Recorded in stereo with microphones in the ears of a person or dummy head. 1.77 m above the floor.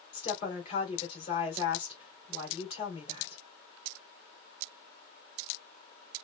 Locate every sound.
0.1 s a woman speaking: 40° left (ahead or behind), 2.5 m